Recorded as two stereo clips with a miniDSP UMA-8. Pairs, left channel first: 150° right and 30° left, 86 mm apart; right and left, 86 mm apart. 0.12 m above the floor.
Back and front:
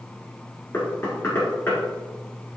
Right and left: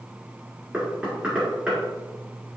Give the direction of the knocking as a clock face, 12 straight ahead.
7 o'clock.